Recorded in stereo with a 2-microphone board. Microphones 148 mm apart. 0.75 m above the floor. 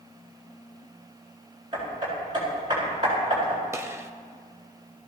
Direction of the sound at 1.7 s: 30° right (ahead or behind).